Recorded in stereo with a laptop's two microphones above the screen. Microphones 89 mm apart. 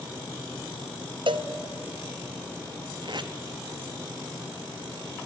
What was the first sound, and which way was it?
A cowbell, 60° right (ahead or behind).